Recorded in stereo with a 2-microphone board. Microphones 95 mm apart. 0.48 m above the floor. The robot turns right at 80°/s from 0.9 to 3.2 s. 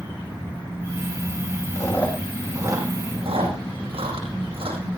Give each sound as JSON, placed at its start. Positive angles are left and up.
{"t": 1.8, "sound": "chewing", "side_deg": 45, "distance_m": 7.0}